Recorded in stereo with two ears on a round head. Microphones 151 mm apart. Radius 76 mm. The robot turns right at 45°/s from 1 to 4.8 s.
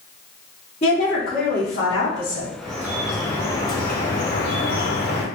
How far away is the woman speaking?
About 1.0 m.